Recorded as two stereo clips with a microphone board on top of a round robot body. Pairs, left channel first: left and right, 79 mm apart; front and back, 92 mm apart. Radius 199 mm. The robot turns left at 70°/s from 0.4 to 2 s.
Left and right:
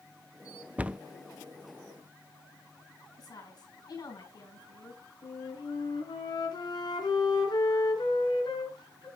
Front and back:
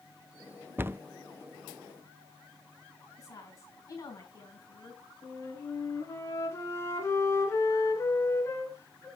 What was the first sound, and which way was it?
A cupboard door, 140° right.